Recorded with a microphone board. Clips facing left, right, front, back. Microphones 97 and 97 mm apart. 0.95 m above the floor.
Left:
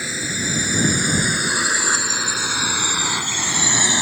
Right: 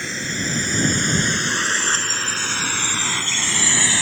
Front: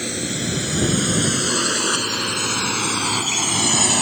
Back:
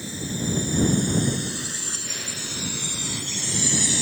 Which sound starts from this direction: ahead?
A drone, at 0.0 s.